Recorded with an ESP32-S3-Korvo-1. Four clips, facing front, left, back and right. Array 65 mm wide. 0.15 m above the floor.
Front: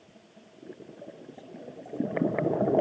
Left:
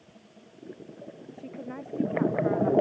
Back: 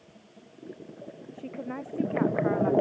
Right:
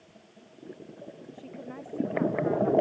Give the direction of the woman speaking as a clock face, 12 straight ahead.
6 o'clock.